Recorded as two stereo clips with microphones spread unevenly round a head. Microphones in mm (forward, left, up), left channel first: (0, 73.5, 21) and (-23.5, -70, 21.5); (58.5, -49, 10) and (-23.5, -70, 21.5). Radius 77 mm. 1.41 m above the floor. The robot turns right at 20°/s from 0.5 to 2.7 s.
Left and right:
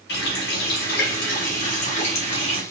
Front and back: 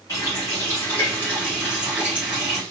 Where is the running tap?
90° left, 0.9 m; by 2.6 s 130° left, 0.9 m.